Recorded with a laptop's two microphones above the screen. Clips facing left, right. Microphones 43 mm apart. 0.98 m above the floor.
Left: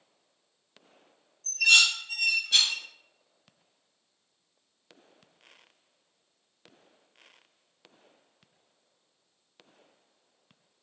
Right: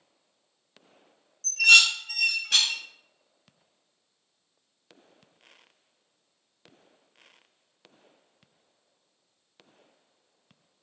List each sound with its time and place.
1.4 s dishes clattering: 80° right, 0.5 m